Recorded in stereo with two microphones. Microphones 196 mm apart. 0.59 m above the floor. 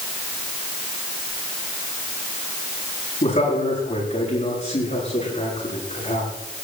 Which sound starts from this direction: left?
A man speaking, at 3.2 s.